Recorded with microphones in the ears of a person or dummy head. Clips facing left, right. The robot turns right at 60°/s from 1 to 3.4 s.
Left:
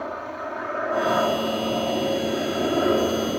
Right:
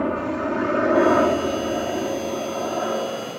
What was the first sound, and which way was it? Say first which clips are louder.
A helicopter: right 8 dB; 65° right (ahead or behind).